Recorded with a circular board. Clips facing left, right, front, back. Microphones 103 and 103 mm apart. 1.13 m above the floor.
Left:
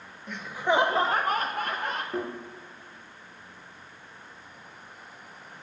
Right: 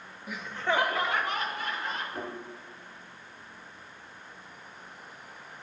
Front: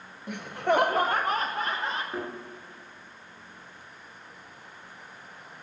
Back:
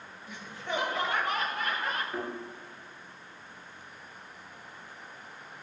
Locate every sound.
0.3 s laughter: 10° right, 0.7 m; by 2.0 s 65° left, 1.3 m
2.1 s a thud: 65° left, 4.5 m